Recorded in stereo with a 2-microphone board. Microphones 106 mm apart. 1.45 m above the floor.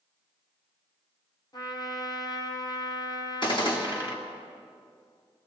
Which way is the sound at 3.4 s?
50° left (ahead or behind).